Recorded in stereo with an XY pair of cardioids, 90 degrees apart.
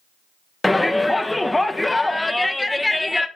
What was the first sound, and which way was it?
A shout, 10° left.